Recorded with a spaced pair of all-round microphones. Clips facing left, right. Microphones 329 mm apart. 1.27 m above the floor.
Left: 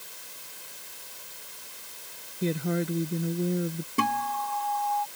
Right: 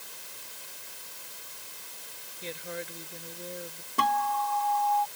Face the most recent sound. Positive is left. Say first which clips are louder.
# left 1 dB
turn(degrees=35)  # may be behind; listen again after turning